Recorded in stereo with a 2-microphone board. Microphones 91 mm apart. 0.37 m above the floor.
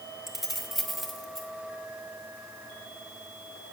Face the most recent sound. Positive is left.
turn(degrees=0)  # may be behind; listen again after turning